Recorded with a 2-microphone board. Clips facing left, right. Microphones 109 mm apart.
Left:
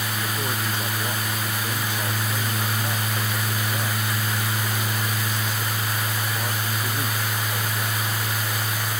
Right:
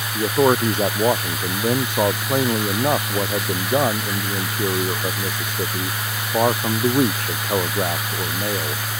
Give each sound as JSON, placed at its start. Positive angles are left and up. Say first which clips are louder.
{"t": 0.1, "sound": "a man speaking", "louder": "right 16 dB", "side_deg": -55}